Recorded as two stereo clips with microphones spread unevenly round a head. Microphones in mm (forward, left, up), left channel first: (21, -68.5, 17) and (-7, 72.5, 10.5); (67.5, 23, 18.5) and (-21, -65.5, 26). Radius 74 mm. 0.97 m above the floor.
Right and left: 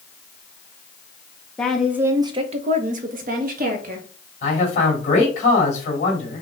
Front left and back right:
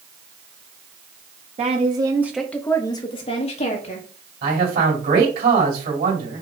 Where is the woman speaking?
165° right, 0.9 m; by 4.1 s 75° left, 1.7 m.